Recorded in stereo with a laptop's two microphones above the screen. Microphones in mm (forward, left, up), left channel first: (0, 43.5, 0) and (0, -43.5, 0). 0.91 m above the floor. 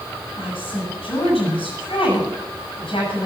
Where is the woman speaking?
85° left, 9 m.